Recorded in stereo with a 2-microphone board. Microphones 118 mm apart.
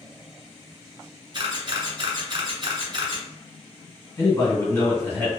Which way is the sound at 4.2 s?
20° left (ahead or behind).